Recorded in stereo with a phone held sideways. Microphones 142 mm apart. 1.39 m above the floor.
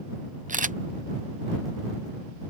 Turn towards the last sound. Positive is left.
turn(degrees=-65)  # may be behind; listen again after turning